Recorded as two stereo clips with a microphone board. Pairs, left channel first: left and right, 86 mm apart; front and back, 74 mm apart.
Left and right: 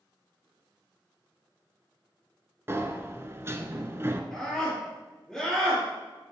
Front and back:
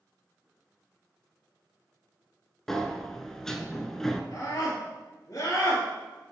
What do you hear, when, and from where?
2.7 s a sliding door: 80° right, 0.6 m
4.3 s a scream: 5° left, 2.5 m